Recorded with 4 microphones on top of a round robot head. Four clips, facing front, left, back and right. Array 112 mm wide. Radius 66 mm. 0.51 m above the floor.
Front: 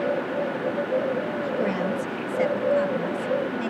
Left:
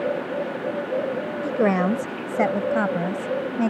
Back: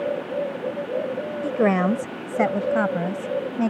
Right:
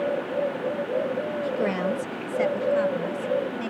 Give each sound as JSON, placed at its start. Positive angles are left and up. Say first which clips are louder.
{"t": 1.4, "sound": "a woman speaking", "louder": "left 7 dB, back 9 dB", "azimuth_deg": 145}